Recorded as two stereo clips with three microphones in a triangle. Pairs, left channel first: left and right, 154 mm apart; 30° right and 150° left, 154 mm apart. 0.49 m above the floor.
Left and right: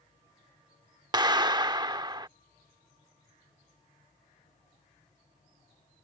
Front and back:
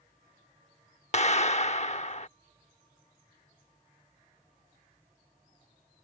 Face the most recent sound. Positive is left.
turn(degrees=-40)